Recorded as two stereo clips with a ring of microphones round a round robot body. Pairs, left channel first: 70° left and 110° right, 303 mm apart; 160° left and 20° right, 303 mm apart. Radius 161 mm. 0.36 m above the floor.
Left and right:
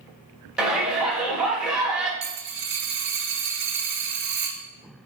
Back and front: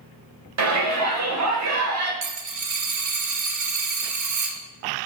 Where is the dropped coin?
55° right, 1.1 m.